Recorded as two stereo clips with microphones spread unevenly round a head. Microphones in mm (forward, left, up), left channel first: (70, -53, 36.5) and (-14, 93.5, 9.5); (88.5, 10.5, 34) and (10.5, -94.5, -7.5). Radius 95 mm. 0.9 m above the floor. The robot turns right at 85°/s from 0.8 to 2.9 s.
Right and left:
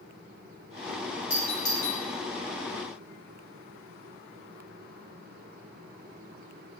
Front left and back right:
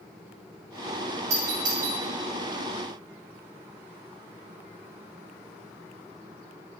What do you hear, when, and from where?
1.3 s a doorbell: 165° right, 5 m; by 2.0 s 105° right, 5 m